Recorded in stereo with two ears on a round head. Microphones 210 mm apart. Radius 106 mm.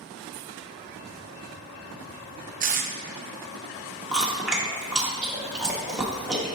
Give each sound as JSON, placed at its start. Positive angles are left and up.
{"t": 2.6, "sound": "tape being pulled", "side_deg": -35, "distance_m": 0.8}
{"t": 4.1, "sound": "chewing", "side_deg": -5, "distance_m": 1.4}